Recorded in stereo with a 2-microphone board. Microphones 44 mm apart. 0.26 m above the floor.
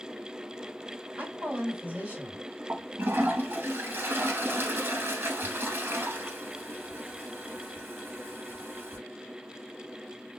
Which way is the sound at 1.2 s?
40° right (ahead or behind).